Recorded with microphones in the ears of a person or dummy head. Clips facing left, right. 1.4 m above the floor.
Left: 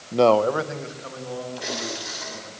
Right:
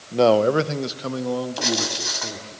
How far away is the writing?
About 6 m.